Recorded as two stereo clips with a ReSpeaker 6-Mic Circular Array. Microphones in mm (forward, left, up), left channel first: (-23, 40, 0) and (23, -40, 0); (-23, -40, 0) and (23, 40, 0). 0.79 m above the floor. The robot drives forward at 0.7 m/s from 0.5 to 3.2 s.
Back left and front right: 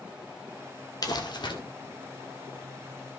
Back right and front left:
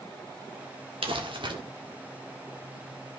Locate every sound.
1.0 s crumpling: 75° left, 1.6 m; by 1.5 s 90° left, 1.6 m